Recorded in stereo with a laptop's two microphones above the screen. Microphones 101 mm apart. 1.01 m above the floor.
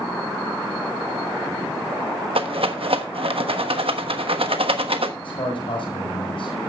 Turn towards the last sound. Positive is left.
turn(degrees=60)  # may be behind; listen again after turning